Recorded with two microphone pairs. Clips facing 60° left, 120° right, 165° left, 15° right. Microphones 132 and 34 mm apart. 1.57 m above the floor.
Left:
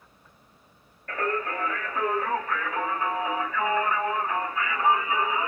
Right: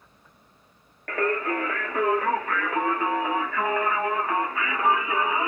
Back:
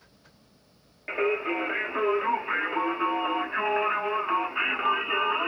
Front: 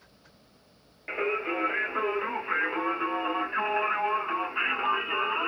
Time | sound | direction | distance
1.1 | singing | 110° right | 0.7 m